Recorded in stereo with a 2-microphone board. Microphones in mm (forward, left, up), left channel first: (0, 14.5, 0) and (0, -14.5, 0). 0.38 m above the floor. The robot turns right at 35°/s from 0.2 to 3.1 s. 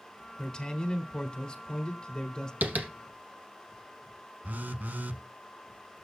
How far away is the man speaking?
About 1.3 m.